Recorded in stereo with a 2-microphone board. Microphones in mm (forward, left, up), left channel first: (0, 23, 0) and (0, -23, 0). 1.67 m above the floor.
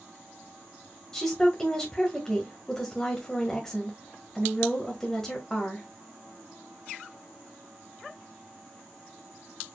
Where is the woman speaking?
10° left (ahead or behind), 1.5 m.